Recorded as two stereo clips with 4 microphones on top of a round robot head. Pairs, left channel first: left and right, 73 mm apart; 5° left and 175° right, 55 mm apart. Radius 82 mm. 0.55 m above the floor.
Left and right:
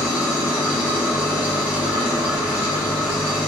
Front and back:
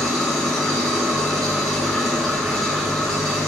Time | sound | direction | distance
0.0 | an engine running | 95° left | 2.0 m